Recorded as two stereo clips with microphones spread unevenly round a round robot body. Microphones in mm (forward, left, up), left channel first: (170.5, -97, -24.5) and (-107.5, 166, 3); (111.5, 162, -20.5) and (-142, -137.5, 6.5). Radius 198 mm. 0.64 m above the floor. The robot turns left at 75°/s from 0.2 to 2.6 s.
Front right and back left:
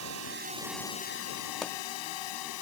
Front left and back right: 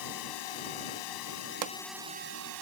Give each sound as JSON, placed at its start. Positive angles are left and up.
{"t": 0.0, "sound": "a drone", "azimuth_deg": 85}
{"t": 1.6, "sound": "a pop", "azimuth_deg": -125}